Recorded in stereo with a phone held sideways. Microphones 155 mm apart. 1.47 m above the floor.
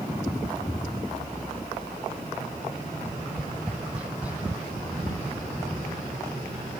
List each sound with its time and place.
0.6 s an explosion: 35° left (ahead or behind), 0.7 m
3.0 s tapping: 10° right (ahead or behind), 1.3 m